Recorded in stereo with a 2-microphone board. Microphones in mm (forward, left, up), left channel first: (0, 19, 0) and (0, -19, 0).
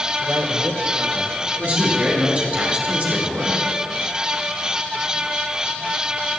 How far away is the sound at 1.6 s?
About 4.5 m.